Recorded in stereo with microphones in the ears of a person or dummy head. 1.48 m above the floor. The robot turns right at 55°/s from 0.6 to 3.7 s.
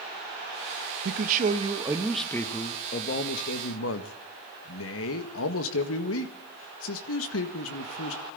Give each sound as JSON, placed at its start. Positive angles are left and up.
{"t": 1.1, "sound": "a man speaking", "azimuth_deg": -65, "distance_m": 1.8}